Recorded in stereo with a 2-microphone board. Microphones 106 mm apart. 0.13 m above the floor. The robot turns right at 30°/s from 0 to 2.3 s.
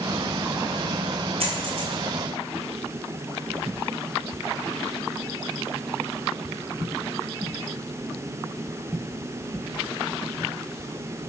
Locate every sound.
1.4 s a dropped coin: 65° right (ahead or behind), 1.5 m; by 1.9 s 55° right (ahead or behind), 1.5 m